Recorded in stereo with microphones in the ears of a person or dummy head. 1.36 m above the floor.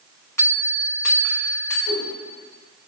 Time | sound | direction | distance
0.4 | a bell | 15° left (ahead or behind) | 3 m
1.9 | a whoosh | 80° left | 3 m